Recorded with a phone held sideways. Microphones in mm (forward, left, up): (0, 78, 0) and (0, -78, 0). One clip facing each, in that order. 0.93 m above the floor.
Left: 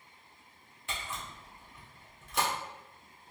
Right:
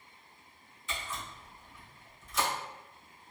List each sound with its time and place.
0.9 s a camera shutter: 65° left (ahead or behind), 1.2 m